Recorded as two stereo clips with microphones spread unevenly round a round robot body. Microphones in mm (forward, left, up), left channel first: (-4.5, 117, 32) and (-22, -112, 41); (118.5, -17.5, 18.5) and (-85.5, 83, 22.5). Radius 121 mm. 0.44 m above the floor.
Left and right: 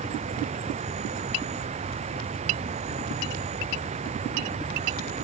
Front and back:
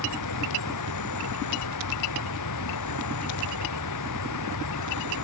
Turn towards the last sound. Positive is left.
turn(degrees=-30)